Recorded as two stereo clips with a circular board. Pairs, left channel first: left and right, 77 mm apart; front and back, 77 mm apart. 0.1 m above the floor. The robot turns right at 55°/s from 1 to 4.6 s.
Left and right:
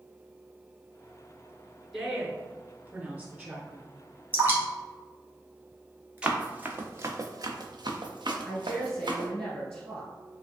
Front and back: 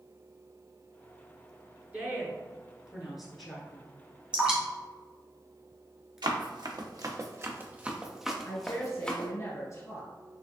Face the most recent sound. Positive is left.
turn(degrees=10)